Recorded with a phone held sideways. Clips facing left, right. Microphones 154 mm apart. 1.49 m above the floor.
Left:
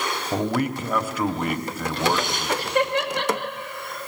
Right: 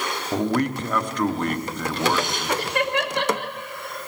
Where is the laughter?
80° right, 3 m.